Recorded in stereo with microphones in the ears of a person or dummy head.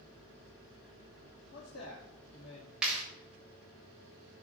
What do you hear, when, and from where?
1.5 s a man speaking: 60° left (ahead or behind), 2.0 m
2.8 s a clap: 5° right (ahead or behind), 4 m